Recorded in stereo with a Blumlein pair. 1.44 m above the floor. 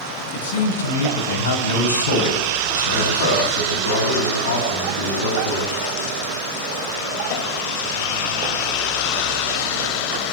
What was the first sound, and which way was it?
A man speaking, 65° left.